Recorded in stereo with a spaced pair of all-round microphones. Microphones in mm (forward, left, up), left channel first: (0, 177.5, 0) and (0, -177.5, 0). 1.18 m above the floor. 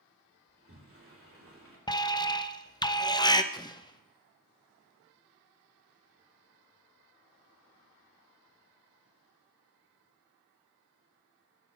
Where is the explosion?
10° left (ahead or behind), 0.6 m.